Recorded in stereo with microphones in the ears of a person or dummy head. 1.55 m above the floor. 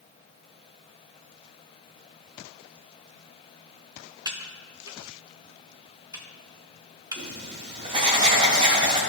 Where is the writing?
25° right (ahead or behind), 1.4 m.